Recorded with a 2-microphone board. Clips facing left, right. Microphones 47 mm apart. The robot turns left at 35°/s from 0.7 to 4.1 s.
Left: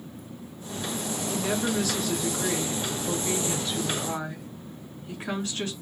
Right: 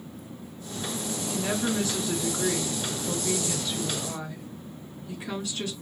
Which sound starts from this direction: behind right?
A woman speaking, at 1.3 s.